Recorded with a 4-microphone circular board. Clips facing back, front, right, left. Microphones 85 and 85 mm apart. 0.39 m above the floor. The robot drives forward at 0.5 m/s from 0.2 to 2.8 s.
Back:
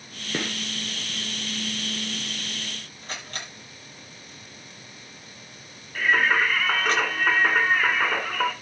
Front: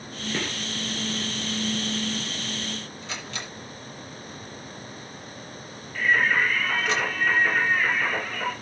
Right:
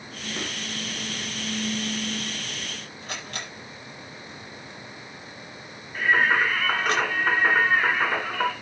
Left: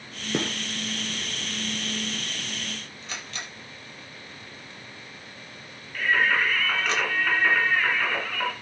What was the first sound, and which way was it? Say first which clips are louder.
A gunshot: back 2 dB, left 7 dB; 105° left.